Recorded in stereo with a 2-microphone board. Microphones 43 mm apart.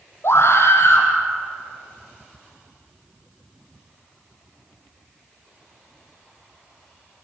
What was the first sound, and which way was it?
A scream, 65° left (ahead or behind).